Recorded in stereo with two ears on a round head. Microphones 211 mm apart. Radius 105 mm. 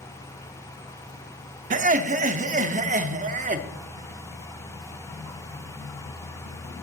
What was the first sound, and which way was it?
Laughter, 30° right (ahead or behind).